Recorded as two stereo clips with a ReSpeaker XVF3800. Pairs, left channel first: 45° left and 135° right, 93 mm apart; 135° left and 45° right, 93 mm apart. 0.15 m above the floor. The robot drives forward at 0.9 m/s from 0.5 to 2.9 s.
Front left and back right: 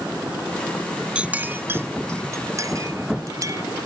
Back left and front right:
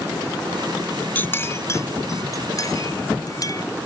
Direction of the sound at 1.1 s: 165° left.